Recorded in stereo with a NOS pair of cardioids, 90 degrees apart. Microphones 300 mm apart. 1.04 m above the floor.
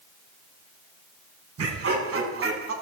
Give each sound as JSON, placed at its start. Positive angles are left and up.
{"t": 1.6, "sound": "laughter", "azimuth_deg": -50, "distance_m": 8.0}